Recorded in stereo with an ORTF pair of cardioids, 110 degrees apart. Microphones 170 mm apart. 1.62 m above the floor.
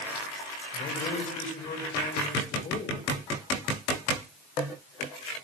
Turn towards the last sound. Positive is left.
turn(degrees=45)